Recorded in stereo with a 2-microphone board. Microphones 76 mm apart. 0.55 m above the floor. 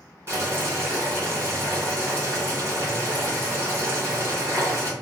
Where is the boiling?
30° right (ahead or behind), 2 m.